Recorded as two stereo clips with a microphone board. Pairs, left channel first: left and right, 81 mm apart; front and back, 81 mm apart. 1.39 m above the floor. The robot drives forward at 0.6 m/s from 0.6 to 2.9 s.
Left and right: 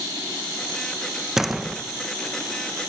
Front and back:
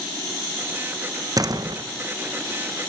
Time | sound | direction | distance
1.4 | a door slam | 175° right | 0.6 m